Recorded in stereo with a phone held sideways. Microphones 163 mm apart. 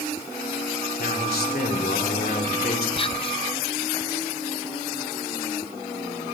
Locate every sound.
1.0 s a man speaking: 70° left (ahead or behind), 3 m
3.0 s whispering: 35° left (ahead or behind), 0.6 m